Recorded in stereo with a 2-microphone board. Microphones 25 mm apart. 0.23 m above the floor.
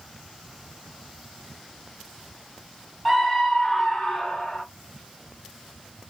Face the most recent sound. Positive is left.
turn(degrees=20)  # may be behind; listen again after turning